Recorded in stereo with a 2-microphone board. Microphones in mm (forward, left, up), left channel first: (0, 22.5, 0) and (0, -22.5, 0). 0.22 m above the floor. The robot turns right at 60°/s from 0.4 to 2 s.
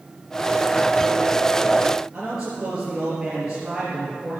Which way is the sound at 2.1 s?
10° right (ahead or behind).